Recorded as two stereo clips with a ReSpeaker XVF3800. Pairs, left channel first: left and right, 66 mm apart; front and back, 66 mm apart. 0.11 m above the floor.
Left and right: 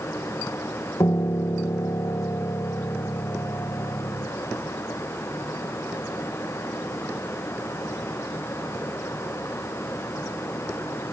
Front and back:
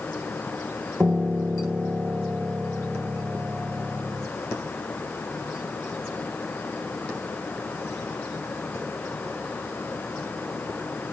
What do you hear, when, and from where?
1.0 s a piano: 115° left